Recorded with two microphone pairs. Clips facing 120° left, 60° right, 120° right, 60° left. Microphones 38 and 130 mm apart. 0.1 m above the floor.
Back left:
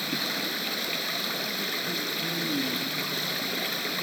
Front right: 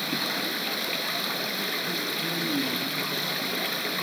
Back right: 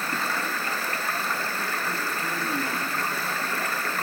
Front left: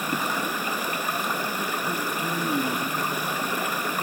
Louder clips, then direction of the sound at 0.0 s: Front right 1 dB, front left 2 dB; 25° left.